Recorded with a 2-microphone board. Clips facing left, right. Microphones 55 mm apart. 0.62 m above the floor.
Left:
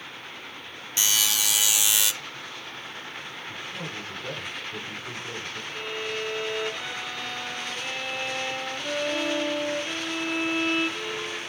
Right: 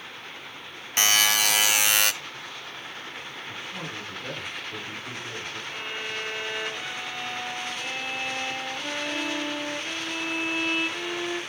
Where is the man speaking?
15° right (ahead or behind), 5 m.